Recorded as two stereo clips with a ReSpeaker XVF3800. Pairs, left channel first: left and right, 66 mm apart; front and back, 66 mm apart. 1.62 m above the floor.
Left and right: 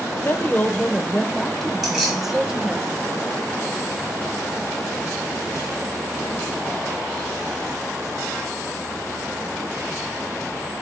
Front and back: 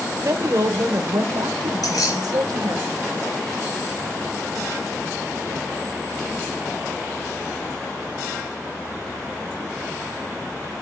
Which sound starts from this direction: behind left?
A woman speaking, at 0.2 s.